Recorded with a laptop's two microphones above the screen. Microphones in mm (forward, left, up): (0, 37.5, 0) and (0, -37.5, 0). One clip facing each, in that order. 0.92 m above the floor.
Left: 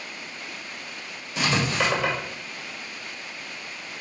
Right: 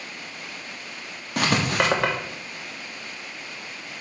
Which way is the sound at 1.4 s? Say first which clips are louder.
Right 2 dB; 60° right (ahead or behind).